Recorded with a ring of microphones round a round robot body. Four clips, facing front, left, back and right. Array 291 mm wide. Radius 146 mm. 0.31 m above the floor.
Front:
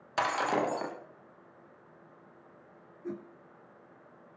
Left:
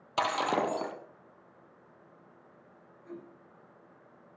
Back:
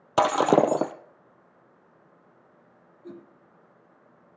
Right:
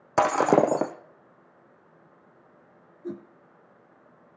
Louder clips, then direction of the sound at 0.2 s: Right 9 dB, back 10 dB; 140° right.